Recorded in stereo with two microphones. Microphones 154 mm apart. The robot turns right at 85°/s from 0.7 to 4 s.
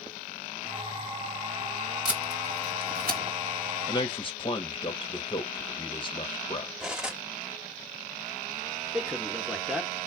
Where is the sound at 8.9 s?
5° right (ahead or behind), 1.0 m.